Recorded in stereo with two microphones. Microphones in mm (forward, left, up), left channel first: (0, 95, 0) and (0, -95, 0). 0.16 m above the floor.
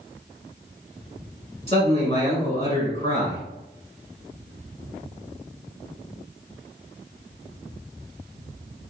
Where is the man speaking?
35° left (ahead or behind), 1.5 m.